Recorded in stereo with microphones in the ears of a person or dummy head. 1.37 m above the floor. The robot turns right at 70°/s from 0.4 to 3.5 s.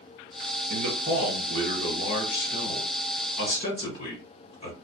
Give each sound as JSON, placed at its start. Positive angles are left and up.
{"t": 0.7, "sound": "a man speaking", "azimuth_deg": -55, "distance_m": 1.3}